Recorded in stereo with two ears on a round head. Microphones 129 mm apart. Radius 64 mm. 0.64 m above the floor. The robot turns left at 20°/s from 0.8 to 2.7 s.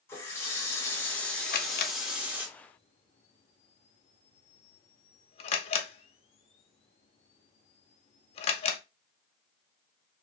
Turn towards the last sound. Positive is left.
turn(degrees=45)  # may be behind; listen again after turning